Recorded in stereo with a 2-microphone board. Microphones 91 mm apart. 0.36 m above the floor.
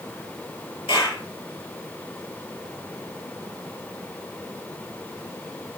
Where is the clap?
85° left, 6.5 m.